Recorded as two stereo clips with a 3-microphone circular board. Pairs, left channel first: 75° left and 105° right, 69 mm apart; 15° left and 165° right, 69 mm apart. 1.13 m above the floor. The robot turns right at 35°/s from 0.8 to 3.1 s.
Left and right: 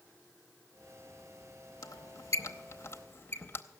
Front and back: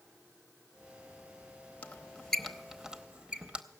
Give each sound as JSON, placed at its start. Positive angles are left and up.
{"t": 1.8, "sound": "a squeak", "azimuth_deg": 80, "distance_m": 0.7}